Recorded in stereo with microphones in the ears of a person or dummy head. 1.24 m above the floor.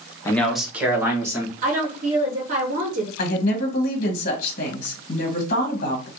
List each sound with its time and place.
0.2 s a man speaking: 15° left (ahead or behind), 0.6 m; by 1.5 s 20° right (ahead or behind), 1.9 m
1.6 s a woman speaking: 40° right (ahead or behind), 0.6 m
3.2 s a woman speaking: 45° left (ahead or behind), 1.4 m